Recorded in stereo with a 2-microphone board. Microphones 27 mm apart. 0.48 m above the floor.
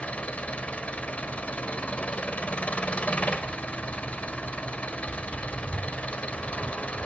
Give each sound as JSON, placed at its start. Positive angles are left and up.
{"t": 0.0, "sound": "an engine running", "side_deg": 60, "distance_m": 1.8}